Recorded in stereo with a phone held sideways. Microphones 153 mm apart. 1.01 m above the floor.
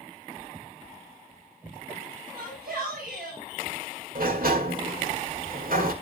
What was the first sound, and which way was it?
A shout, 85° right.